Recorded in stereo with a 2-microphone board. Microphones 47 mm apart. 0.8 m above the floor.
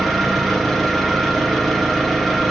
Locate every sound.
0.0 s an engine running: 5° left (ahead or behind), 1.1 m